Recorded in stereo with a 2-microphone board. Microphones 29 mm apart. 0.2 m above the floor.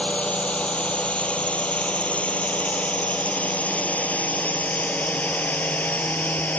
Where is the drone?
45° left (ahead or behind); by 6.6 s 70° left (ahead or behind).